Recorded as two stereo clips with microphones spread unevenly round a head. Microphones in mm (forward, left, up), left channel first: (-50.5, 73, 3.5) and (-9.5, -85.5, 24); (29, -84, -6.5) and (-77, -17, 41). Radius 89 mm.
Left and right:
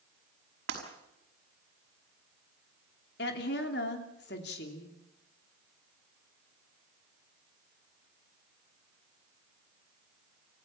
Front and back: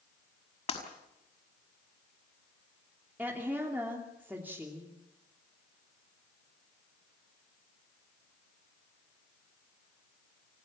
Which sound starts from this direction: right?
Breaking glass, at 0.7 s.